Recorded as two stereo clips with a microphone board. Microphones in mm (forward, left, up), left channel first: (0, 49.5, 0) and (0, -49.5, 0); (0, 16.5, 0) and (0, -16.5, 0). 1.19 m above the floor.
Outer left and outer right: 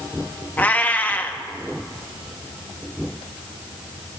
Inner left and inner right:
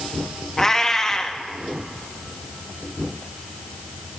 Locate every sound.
0.6 s a cat meowing: 15° left (ahead or behind), 0.8 m